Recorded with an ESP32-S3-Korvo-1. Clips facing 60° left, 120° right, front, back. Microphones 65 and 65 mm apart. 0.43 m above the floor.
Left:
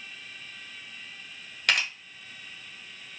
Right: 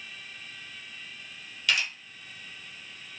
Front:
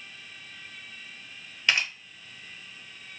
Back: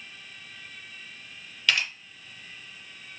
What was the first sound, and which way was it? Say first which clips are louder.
A camera shutter: left 2 dB, even; 55° left.